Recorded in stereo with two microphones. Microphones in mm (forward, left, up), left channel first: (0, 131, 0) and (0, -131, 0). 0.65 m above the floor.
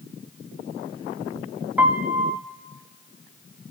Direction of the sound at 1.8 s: 5° right (ahead or behind).